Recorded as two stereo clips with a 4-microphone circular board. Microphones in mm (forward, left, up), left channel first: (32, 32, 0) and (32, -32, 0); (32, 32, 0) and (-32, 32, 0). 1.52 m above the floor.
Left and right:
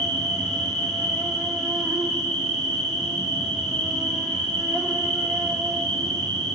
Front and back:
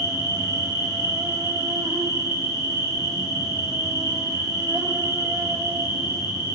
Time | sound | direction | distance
0.0 | an insect | 165° left | 1.7 m